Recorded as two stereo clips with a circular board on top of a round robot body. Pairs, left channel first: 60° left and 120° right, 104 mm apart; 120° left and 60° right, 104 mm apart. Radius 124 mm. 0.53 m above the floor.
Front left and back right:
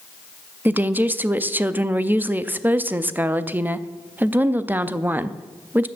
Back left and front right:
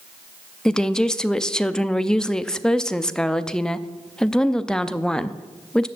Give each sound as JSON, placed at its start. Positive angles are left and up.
{"t": 0.7, "sound": "a woman speaking", "azimuth_deg": -165, "distance_m": 0.7}